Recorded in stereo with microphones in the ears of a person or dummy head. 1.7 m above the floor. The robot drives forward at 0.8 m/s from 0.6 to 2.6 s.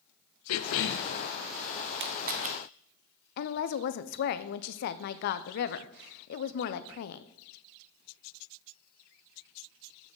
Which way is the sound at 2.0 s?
60° right (ahead or behind).